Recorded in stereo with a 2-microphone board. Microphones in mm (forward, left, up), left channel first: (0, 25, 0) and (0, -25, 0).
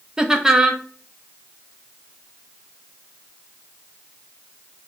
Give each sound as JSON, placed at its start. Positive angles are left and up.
{"t": 0.2, "sound": "laughter", "side_deg": -15, "distance_m": 0.5}